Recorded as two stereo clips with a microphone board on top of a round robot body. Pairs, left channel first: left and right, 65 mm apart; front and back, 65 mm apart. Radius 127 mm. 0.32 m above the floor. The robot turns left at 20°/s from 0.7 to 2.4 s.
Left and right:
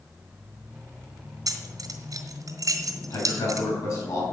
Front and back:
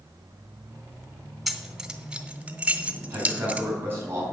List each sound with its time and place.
1.5 s keys jangling: 90° right, 1.8 m; by 3.7 s 110° right, 1.8 m
3.1 s a man speaking: 125° left, 4 m